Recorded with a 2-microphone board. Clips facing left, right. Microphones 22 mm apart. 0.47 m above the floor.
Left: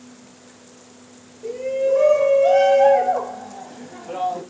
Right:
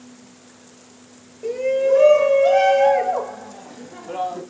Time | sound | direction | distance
1.4 | a shout | 30° right (ahead or behind) | 1.9 m